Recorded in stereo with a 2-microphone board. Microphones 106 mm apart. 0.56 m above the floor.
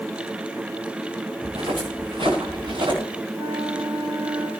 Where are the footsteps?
65° right (ahead or behind), 7 m; by 3.0 s 50° right (ahead or behind), 8 m.